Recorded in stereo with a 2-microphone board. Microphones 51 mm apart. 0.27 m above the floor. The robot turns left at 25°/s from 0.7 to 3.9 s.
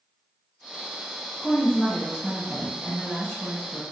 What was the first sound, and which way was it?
A woman speaking, 20° left (ahead or behind).